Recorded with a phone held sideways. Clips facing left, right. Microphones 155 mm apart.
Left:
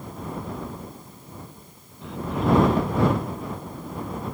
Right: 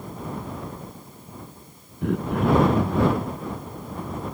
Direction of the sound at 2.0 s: 60° right (ahead or behind).